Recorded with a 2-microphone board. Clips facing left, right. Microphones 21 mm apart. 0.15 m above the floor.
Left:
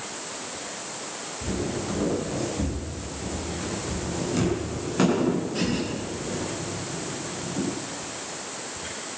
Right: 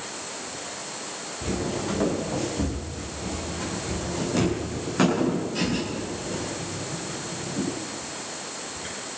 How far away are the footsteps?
About 5 m.